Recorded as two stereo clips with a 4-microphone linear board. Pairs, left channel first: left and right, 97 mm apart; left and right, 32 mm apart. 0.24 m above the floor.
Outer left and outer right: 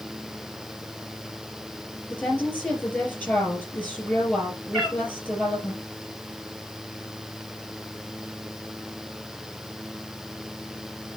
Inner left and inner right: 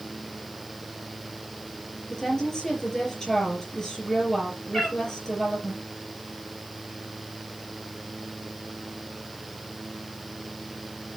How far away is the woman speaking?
About 5 m.